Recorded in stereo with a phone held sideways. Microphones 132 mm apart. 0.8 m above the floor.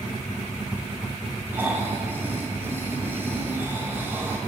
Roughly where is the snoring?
Centre.